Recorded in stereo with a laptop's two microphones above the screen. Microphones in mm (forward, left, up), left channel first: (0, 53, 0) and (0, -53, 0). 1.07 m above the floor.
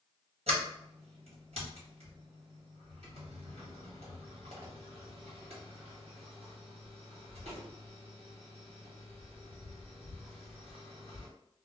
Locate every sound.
0.5 s a sliding door: 75° right (ahead or behind), 1.3 m